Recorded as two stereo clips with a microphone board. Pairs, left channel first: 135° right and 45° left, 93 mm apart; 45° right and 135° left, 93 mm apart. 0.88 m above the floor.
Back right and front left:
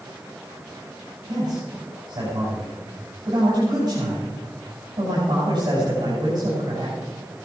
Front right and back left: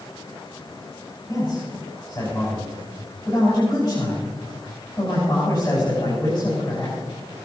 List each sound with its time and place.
1.3 s a man speaking: straight ahead, 6 m